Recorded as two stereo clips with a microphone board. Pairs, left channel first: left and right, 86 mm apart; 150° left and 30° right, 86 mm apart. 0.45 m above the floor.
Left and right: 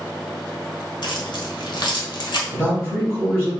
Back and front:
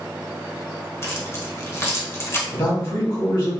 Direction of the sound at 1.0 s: 100° left.